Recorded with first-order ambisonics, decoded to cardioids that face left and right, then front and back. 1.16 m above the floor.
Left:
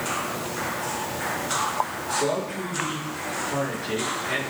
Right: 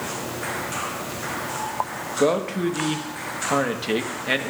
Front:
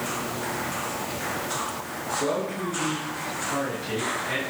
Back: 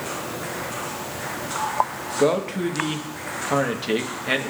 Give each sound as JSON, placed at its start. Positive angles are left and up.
{"t": 2.2, "sound": "a man speaking", "azimuth_deg": -135, "distance_m": 1.4}